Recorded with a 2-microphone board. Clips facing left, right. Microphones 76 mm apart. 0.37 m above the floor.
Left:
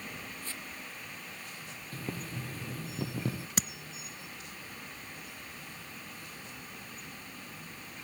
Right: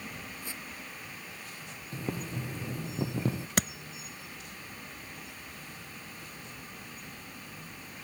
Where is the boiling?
20° right (ahead or behind).